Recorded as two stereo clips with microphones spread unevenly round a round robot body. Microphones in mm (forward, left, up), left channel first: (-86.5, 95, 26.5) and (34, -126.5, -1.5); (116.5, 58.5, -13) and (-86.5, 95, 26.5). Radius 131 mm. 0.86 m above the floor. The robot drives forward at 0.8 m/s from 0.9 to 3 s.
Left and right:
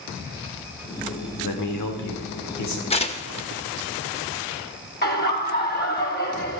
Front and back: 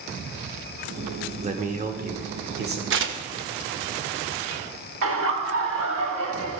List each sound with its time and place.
1.4 s a man speaking: 110° left, 2 m; by 2.8 s 135° left, 2.5 m
2.9 s tearing paper: straight behind, 0.9 m
5.0 s laughter: 170° left, 2 m